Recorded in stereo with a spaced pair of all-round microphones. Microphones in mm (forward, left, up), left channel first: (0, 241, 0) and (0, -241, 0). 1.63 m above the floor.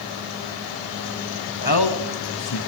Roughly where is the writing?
No writing in this recording.